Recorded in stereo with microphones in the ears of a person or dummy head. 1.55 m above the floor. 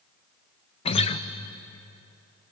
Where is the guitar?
35° left (ahead or behind), 1.0 m.